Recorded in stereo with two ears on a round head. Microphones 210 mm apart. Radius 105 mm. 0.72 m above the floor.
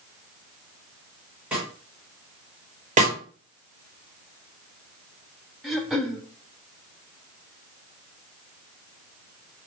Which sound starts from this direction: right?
A snare drum, at 3.0 s.